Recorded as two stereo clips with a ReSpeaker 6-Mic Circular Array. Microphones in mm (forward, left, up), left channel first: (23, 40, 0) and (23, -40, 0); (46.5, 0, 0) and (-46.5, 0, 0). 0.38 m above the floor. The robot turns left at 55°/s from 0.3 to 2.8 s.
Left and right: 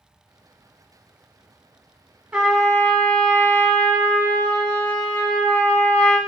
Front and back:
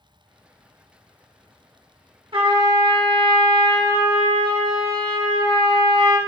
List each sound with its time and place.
2.3 s a trumpet: 170° right, 0.8 m; by 6.2 s 165° left, 0.8 m